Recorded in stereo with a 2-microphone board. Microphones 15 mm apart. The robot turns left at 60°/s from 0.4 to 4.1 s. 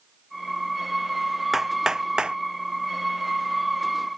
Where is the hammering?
15° right (ahead or behind); by 2.4 s 65° right (ahead or behind).